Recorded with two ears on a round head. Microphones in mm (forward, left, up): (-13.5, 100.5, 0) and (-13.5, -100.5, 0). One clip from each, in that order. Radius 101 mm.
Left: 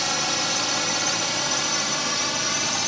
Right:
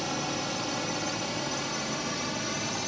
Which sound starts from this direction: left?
A drone, at 0.0 s.